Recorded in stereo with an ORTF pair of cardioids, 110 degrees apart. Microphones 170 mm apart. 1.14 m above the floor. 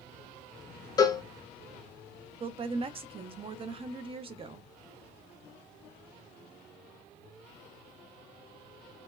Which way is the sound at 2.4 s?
30° right.